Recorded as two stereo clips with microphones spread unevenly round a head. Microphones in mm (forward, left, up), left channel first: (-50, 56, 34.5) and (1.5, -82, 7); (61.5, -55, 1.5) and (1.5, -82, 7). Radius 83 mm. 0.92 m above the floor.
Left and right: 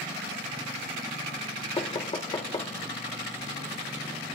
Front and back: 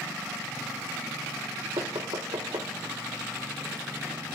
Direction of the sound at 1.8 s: 170° left.